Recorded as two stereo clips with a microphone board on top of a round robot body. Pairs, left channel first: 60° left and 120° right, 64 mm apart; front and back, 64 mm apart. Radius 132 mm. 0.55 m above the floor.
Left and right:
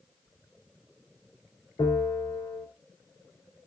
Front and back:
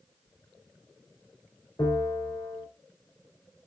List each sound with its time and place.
1.8 s a bell: 45° left, 4.5 m